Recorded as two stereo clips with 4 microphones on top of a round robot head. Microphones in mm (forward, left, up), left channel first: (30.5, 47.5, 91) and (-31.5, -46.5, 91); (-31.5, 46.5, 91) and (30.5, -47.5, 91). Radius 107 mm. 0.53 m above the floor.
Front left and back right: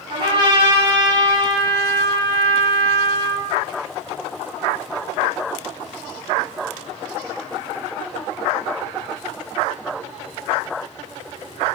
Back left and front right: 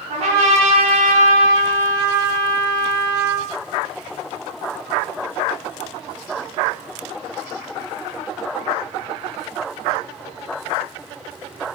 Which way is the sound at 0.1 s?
80° right.